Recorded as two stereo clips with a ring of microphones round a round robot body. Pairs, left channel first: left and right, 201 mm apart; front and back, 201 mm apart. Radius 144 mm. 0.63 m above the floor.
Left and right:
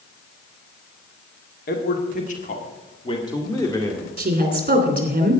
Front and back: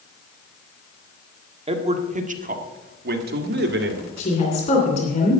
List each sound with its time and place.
1.7 s a man speaking: 125° left, 1.7 m; by 4.1 s 170° left, 1.9 m
4.2 s a woman speaking: 50° right, 2.5 m